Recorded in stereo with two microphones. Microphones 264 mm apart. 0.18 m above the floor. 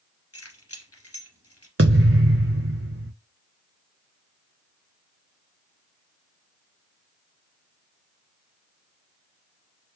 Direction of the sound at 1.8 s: 60° right (ahead or behind).